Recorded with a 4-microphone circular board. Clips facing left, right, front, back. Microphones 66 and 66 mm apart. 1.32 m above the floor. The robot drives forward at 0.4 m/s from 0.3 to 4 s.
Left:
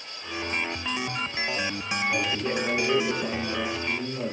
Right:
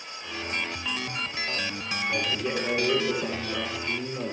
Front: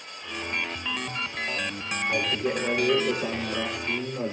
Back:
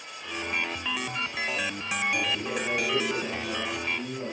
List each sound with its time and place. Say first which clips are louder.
2.1 s a man speaking: even, front 6 dB; 10° right, 4 m